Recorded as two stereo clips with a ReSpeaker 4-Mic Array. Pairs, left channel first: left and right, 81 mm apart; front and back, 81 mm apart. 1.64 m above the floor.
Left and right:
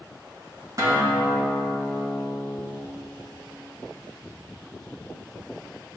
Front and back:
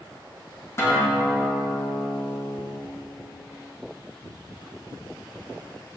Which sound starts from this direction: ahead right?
A guitar, at 0.8 s.